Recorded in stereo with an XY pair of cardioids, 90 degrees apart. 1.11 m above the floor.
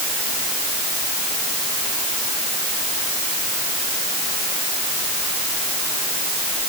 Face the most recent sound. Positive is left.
No sound to turn to.